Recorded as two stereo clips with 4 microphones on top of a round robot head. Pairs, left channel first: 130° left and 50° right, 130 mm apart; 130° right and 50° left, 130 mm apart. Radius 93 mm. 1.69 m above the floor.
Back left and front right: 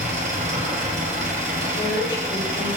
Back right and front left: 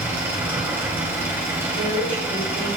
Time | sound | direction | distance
0.0 | an engine running | 20° right | 2.5 m
1.7 | a woman speaking | 80° left | 6.5 m